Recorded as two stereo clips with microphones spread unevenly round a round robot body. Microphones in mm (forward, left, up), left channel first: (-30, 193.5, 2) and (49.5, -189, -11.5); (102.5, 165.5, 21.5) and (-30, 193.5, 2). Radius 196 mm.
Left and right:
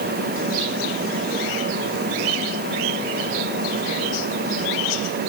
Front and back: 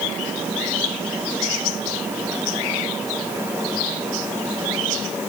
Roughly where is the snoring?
I don't hear snoring.